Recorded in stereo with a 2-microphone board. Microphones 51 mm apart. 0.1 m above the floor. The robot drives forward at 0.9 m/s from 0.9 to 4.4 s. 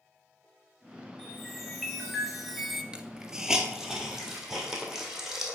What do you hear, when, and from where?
1.2 s a chime: centre (ahead or behind), 2 m; by 2.8 s 5° right (ahead or behind), 0.5 m
2.9 s a hiss: 20° right (ahead or behind), 0.6 m; by 5.6 s 5° right (ahead or behind), 1.7 m